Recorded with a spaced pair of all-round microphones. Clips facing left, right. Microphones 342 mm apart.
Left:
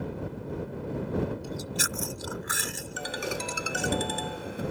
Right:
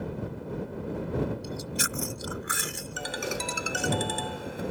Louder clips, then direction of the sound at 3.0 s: Even; centre (ahead or behind).